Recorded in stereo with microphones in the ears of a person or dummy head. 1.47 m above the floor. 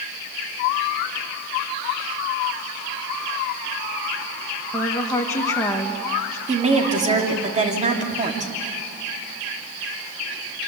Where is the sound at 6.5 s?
30° right (ahead or behind), 3 m.